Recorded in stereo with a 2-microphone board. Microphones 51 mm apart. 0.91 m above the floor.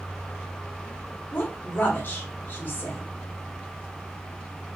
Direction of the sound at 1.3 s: 55° left (ahead or behind).